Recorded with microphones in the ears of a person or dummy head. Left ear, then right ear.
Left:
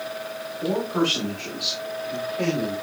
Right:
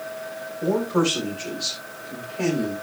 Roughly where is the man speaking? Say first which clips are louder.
Right 2 dB; centre.